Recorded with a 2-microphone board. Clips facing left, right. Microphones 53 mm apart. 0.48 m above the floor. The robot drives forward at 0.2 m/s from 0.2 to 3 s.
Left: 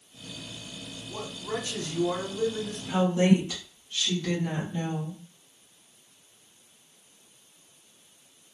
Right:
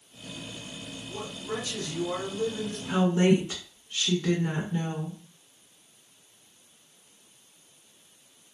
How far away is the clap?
No clap in this recording.